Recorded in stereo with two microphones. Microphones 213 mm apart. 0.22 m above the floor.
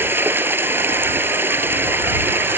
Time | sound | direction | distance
0.0 | running water | 10° right (ahead or behind) | ?